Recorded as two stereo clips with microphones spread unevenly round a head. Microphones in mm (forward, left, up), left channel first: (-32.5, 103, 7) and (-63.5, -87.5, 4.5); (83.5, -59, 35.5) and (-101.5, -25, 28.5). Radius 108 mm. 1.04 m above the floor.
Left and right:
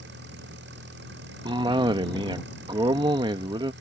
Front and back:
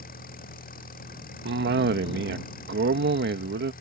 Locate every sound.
0.0 s an engine running: 55° right
1.4 s a cough: 165° right